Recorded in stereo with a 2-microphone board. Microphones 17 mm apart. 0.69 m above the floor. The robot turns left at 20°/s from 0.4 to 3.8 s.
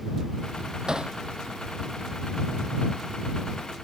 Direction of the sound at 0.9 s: 45° right (ahead or behind).